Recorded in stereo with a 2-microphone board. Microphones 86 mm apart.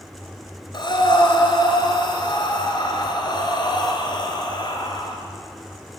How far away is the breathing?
About 3 m.